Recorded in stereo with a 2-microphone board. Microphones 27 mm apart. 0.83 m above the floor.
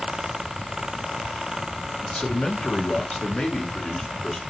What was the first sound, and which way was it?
A man speaking, 50° left (ahead or behind).